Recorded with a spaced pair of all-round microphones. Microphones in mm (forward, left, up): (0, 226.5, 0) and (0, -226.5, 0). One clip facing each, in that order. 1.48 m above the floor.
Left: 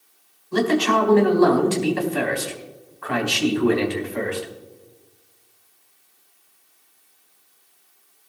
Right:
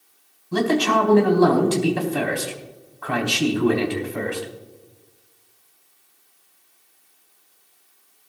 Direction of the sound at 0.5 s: 55° right (ahead or behind).